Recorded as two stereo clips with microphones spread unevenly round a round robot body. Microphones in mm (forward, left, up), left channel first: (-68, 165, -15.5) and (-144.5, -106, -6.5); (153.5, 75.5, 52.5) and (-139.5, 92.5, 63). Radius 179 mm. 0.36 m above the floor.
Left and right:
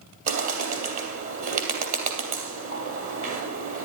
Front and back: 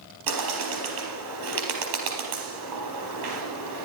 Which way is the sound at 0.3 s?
130° right.